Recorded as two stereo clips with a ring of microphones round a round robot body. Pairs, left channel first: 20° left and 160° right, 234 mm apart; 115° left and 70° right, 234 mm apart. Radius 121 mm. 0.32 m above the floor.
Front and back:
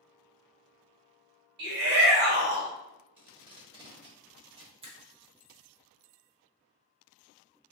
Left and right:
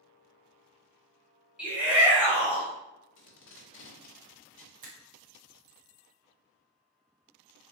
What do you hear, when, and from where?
1.6 s a shout: 150° right, 1.7 m
3.2 s tape being pulled: 135° left, 0.9 m
4.8 s a finger snap: 105° right, 0.8 m